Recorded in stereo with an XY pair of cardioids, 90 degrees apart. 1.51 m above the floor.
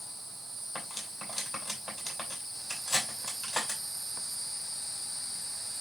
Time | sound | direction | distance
0.8 | cutlery clinking | 20° left | 6 m